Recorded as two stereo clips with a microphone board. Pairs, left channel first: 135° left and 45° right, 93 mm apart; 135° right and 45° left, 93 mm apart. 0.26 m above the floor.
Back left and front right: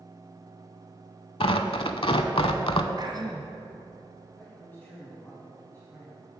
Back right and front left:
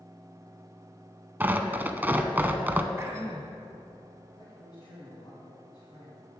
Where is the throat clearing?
15° right, 1.5 m.